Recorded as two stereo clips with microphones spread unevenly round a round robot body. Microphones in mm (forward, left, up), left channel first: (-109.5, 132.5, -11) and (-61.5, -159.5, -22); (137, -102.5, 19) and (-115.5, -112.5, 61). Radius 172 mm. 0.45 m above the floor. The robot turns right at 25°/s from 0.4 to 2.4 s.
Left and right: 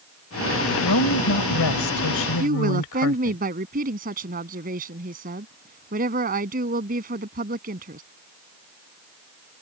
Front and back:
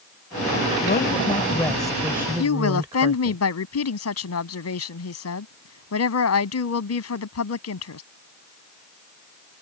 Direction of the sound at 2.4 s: 15° right.